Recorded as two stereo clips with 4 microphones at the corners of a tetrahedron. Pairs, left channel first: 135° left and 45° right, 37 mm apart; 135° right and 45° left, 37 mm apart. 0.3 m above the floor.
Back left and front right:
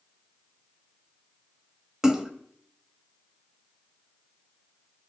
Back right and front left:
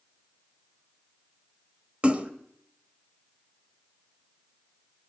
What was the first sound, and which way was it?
A splash, 20° left.